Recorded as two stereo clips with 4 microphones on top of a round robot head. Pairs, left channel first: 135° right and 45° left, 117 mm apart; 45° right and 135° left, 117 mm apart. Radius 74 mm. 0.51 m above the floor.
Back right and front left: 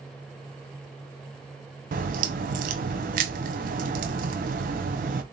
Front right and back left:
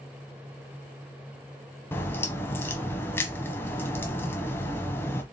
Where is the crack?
30° left, 0.6 m.